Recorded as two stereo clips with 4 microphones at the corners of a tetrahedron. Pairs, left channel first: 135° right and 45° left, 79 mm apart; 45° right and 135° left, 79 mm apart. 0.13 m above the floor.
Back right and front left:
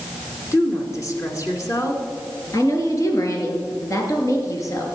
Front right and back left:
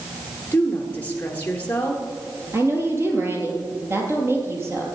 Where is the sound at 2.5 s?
175° right, 2.5 m.